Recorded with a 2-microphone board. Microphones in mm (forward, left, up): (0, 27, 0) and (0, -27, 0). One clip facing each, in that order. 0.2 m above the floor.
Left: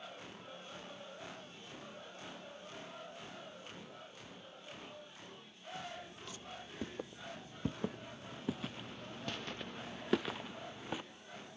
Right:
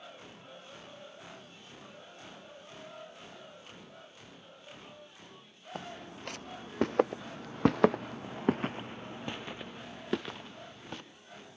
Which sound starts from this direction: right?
Footsteps, at 5.8 s.